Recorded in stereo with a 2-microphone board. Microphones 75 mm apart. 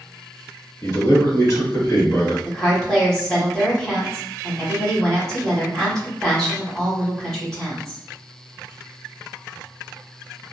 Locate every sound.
0.8 s a man speaking: 45° left (ahead or behind), 1.3 m
2.5 s a woman speaking: 10° left (ahead or behind), 1.5 m